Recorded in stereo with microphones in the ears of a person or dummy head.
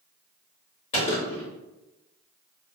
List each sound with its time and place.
0.9 s a gunshot: 40° left (ahead or behind), 1.3 m